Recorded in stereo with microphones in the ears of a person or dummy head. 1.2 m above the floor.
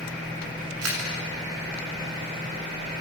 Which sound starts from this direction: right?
A camera shutter, at 0.8 s.